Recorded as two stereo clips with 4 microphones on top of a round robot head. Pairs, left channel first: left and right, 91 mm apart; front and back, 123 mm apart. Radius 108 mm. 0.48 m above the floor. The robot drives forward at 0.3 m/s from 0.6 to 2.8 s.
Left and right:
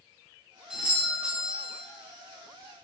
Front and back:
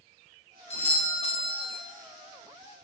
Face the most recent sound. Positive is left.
turn(degrees=-15)